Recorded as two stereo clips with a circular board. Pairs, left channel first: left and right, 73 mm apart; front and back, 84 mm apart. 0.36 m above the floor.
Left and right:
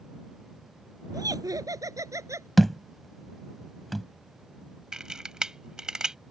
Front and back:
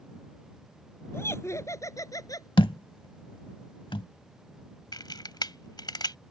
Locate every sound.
1.1 s laughter: 60° right; by 2.5 s 45° right
2.6 s a thud: straight ahead
4.9 s a camera shutter: 10° right